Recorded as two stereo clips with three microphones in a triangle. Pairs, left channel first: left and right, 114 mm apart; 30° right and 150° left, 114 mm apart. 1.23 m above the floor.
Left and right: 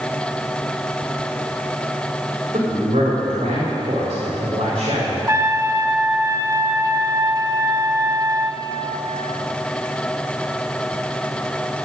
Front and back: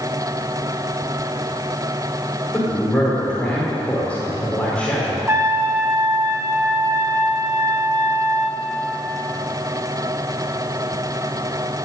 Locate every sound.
2.5 s a man speaking: 110° right, 3.5 m
5.3 s a trumpet: 145° right, 0.9 m